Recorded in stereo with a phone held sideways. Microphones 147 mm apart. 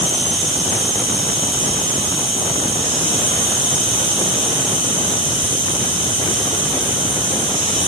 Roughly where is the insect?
Right.